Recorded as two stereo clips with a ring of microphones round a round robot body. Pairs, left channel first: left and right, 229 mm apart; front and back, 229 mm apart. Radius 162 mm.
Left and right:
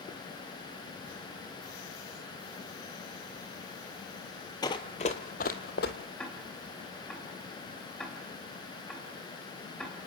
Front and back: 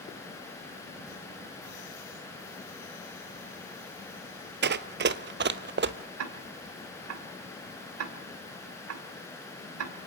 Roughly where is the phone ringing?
No phone ringing in this recording.